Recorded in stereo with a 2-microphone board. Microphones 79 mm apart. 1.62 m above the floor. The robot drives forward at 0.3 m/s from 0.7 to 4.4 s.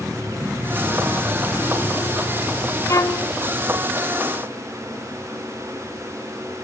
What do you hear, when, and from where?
2.9 s a violin: 40° left (ahead or behind), 0.8 m; by 3.3 s 45° left (ahead or behind), 0.7 m